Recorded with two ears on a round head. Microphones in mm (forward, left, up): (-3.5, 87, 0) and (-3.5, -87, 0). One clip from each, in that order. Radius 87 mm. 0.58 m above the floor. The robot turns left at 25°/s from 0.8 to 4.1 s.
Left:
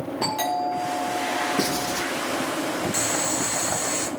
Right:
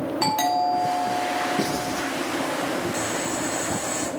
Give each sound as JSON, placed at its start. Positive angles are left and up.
{"t": 0.2, "sound": "a doorbell", "azimuth_deg": -155, "distance_m": 5.0}
{"t": 1.6, "sound": "writing", "side_deg": 45, "distance_m": 4.0}
{"t": 2.9, "sound": "boiling", "side_deg": 50, "distance_m": 0.9}